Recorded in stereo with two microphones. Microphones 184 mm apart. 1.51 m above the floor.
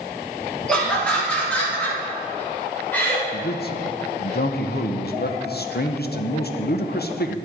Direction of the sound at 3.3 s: 60° left (ahead or behind).